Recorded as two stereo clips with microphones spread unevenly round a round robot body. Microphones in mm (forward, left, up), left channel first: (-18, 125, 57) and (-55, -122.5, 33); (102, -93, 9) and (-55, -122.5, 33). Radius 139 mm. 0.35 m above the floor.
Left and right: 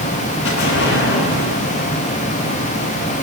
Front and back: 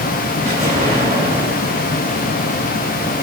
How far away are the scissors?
I don't hear scissors.